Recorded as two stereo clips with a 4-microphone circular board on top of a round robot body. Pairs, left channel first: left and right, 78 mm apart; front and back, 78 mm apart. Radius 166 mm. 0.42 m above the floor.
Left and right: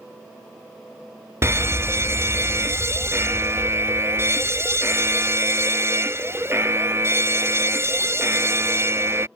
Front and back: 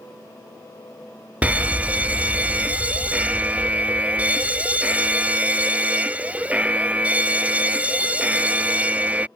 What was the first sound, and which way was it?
A fire alarm, 120° right.